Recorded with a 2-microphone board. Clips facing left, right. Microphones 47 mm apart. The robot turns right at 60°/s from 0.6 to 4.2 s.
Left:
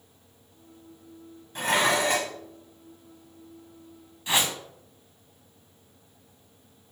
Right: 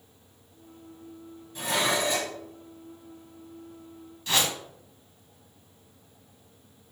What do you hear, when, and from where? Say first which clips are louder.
1.6 s dishes clattering: left 3 dB; 55° left, 1.4 m; by 2.3 s 105° left, 1.4 m
4.3 s a whoosh: left 1 dB; 20° left (ahead or behind), 1.2 m